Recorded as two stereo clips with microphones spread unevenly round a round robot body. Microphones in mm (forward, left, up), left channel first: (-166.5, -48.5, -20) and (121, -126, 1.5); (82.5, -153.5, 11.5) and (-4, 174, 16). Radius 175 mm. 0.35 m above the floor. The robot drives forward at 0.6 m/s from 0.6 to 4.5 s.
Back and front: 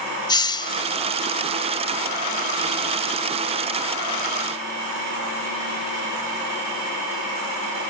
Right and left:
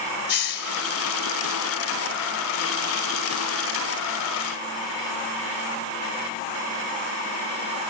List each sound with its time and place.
0.3 s a hiss: 125° right; by 0.8 s 130° right